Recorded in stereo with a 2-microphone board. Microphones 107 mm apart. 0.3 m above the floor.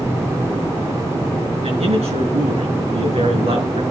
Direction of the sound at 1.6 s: 75° right (ahead or behind).